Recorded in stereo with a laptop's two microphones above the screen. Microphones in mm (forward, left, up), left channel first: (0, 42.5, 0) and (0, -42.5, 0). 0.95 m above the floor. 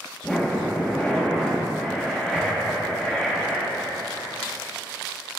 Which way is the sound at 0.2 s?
10° left (ahead or behind).